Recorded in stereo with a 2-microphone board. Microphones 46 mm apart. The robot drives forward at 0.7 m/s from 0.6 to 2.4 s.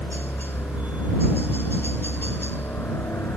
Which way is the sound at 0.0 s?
55° left (ahead or behind).